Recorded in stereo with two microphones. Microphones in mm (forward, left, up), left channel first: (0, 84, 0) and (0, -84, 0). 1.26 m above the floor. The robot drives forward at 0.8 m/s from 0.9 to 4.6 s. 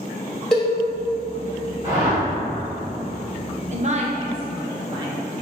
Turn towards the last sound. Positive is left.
turn(degrees=-30)  # may be behind; listen again after turning